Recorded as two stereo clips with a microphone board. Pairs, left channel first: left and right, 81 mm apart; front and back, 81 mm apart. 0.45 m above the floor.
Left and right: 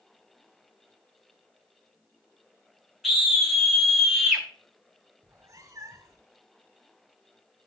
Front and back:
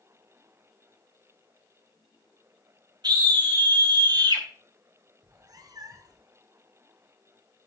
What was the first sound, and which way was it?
A scream, straight behind.